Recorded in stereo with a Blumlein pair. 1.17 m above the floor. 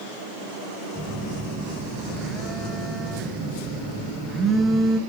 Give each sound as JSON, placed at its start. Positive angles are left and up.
{"t": 0.9, "sound": "a phone buzzing", "azimuth_deg": -20, "distance_m": 1.4}